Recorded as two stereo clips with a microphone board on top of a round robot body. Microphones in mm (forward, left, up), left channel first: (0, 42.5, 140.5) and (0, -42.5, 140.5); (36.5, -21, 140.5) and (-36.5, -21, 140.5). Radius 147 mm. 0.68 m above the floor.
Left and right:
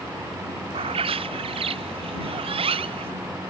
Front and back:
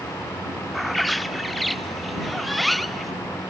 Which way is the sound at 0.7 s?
90° right.